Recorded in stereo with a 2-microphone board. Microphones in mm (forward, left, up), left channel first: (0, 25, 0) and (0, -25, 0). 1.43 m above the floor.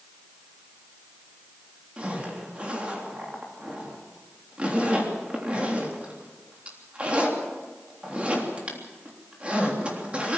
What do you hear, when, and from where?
2.0 s a zipper: 25° right (ahead or behind), 3.5 m